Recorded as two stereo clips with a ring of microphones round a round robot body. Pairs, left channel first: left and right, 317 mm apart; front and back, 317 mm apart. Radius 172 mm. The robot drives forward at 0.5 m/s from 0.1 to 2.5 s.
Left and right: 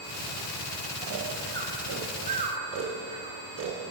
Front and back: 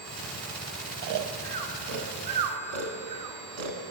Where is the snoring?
140° right, 0.6 m; by 3.9 s 160° right, 1.3 m.